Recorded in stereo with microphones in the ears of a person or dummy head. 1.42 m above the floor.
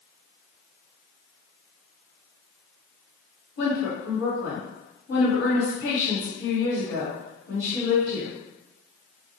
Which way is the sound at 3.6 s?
80° left.